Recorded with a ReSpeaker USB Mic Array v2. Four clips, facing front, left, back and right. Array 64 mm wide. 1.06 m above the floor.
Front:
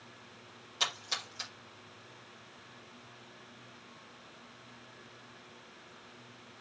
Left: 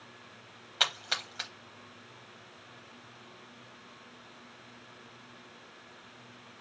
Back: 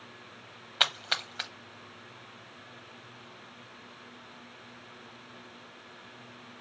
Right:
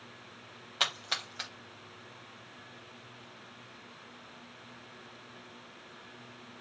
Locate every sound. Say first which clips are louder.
0.8 s a splash: left 1 dB, back 6 dB; 175° left, 0.8 m